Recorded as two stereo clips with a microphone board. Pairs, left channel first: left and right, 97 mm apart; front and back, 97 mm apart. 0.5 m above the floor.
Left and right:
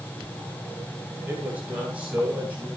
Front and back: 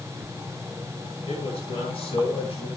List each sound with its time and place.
1.3 s a man speaking: 15° right, 10 m